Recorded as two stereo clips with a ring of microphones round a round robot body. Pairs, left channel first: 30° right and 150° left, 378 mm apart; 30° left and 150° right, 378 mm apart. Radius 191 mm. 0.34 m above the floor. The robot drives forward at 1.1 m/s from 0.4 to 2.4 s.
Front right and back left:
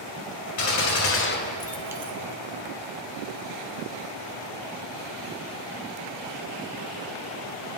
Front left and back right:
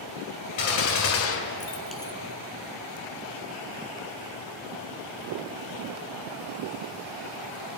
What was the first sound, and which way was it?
A gunshot, 5° left.